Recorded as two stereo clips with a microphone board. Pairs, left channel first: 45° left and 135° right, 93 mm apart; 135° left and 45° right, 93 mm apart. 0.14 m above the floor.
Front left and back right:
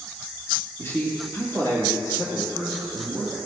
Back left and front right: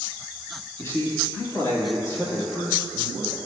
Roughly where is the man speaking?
Left.